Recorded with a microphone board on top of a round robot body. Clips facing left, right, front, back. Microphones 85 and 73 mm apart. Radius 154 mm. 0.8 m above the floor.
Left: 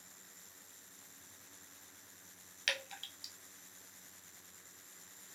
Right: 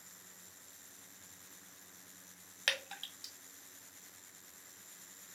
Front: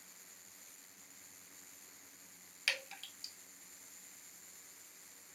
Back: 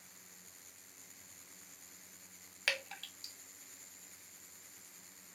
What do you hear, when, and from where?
2.7 s dripping: 140° right, 1.4 m